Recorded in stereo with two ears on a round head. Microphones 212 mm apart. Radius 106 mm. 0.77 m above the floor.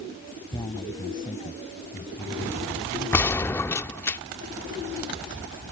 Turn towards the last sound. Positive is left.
turn(degrees=10)  # may be behind; listen again after turning